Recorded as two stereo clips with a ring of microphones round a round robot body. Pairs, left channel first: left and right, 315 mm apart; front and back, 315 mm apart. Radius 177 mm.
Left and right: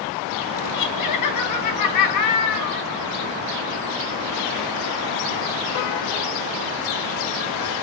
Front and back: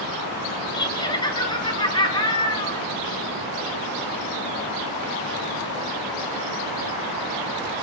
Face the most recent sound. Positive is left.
turn(degrees=75)